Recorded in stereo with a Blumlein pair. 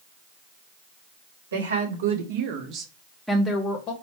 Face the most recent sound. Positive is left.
turn(degrees=35)